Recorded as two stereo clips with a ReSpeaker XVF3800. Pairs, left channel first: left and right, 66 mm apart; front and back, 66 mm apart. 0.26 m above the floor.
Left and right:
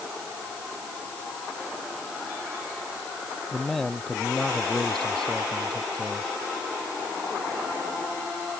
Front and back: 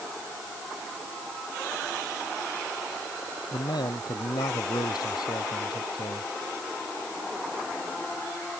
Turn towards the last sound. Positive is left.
turn(degrees=10)